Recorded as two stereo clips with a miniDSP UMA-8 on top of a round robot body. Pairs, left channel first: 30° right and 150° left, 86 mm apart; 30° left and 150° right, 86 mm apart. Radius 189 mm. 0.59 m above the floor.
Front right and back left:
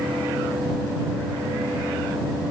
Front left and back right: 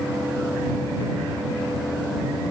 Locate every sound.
Only background noise.